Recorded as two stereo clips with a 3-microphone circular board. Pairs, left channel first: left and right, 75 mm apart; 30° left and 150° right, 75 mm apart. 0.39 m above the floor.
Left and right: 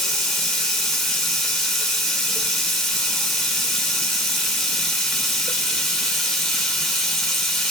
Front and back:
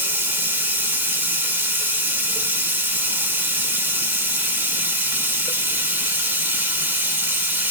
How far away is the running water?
About 1.1 m.